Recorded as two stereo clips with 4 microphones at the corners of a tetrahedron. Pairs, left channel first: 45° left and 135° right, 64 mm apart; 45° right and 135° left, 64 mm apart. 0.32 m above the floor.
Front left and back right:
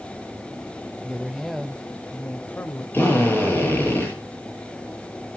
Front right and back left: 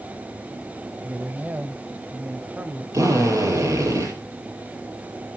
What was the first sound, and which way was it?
A woman speaking, 165° left.